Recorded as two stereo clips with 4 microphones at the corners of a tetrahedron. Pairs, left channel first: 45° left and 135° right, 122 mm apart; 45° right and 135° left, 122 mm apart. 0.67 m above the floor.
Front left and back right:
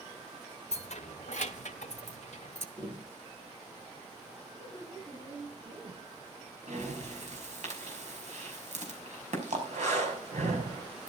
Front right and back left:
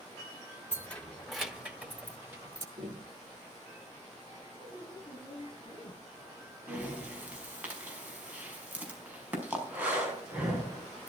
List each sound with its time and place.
0.7 s keys jangling: 25° left, 0.9 m; by 2.7 s 70° left, 1.9 m
2.8 s tapping: 160° left, 6 m
4.5 s a woman speaking: 85° right, 6 m
6.7 s breathing: 150° right, 5 m